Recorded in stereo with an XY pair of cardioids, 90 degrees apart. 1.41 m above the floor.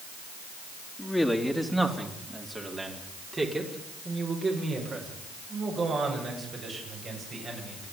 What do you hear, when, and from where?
1.0 s a man speaking: 5° left, 3 m; by 7.8 s 50° right, 11 m